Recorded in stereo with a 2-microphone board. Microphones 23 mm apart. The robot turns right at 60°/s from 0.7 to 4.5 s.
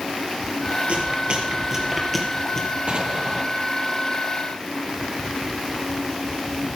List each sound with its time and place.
0.9 s chewing: 60° right (ahead or behind), 3.5 m; by 2.7 s 25° left (ahead or behind), 3.5 m
2.9 s an explosion: 50° right, 1.6 m; by 3.5 s 15° right, 1.6 m